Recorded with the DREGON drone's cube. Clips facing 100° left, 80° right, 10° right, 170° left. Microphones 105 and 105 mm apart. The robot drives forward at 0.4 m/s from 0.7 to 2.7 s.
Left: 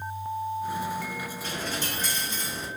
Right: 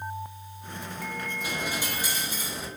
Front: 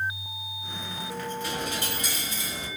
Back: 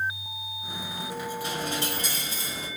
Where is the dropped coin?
145° right, 1.4 m; by 2.7 s 160° right, 1.7 m.